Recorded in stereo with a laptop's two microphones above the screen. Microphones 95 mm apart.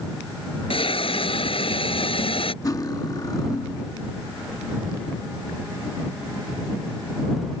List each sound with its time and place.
0.7 s a hiss: 70° left (ahead or behind)
2.6 s cutlery clinking: 40° left (ahead or behind)